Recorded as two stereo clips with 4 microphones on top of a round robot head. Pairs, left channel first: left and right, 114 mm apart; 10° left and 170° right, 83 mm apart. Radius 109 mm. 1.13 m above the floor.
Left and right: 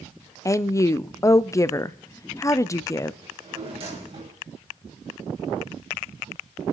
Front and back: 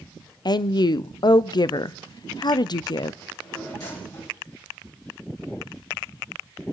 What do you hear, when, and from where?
0.5 s a woman speaking: 30° left, 0.6 m
3.2 s a drawer: 50° right, 3 m